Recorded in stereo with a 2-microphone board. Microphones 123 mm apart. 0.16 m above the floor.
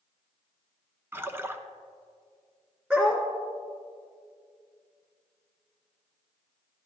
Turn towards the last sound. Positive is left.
turn(degrees=-15)  # may be behind; listen again after turning